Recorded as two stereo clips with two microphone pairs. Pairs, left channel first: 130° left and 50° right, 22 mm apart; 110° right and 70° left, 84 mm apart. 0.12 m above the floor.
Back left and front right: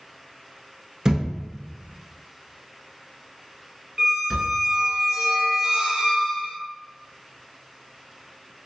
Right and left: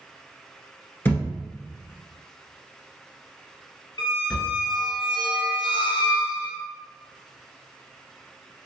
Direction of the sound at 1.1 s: 65° right.